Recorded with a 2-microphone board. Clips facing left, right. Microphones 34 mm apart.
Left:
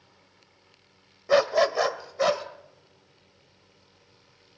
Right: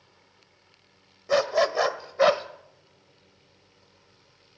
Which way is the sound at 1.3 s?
10° left (ahead or behind).